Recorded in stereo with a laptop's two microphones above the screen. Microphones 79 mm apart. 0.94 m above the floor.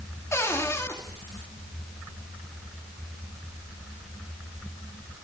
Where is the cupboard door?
35° left (ahead or behind), 2.5 m.